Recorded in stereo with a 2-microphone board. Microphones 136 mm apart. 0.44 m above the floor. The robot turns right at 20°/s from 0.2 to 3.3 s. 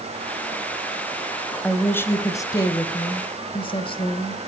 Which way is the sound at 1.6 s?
10° left.